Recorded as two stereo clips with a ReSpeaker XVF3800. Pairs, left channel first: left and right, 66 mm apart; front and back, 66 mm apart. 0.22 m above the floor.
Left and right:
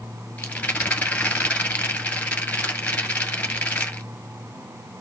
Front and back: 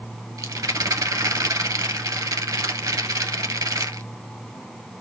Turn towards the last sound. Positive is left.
turn(degrees=160)